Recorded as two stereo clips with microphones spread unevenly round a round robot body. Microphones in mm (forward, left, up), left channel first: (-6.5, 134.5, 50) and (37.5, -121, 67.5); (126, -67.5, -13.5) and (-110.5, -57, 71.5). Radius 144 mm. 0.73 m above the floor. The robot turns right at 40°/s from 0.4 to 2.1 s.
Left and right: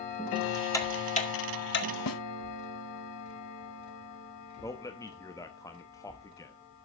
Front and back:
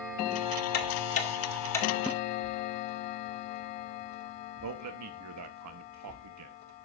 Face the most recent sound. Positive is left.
turn(degrees=170)